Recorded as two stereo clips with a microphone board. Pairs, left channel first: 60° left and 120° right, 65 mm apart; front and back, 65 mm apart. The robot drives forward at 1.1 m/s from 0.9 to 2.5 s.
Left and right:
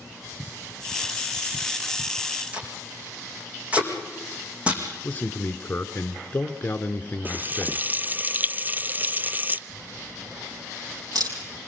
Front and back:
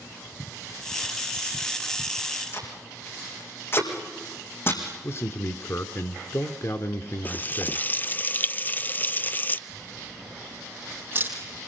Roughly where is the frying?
Ahead right.